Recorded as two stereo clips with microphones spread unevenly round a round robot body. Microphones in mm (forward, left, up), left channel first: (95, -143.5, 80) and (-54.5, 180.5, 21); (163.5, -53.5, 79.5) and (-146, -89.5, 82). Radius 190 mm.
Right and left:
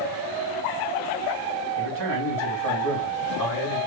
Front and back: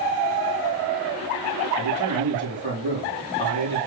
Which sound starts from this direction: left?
A man speaking, at 1.8 s.